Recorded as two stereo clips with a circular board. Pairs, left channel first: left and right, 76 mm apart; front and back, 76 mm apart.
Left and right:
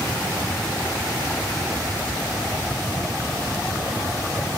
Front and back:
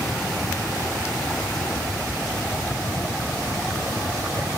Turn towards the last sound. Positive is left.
No sound to turn to.